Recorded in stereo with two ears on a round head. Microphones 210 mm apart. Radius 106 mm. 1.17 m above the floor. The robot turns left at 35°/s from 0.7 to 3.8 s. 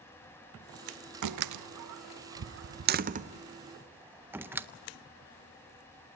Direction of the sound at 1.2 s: 75° right (ahead or behind).